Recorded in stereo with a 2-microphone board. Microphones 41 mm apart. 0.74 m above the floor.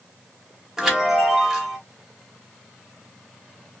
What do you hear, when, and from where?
0.8 s a chime: 5° right (ahead or behind), 1.3 m